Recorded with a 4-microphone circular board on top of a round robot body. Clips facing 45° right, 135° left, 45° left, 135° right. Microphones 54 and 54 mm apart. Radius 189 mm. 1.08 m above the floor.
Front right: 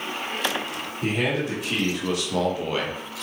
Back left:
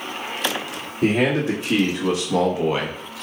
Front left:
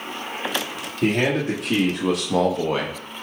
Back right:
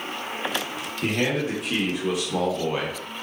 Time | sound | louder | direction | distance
1.0 | a man speaking | back left 6 dB, front left 4 dB | 80° left | 2.5 m